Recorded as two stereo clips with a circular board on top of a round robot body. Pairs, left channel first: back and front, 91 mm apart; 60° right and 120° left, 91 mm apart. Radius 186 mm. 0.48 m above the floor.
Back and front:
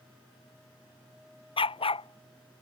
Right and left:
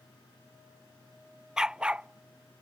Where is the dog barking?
155° right; by 2.6 s 170° right.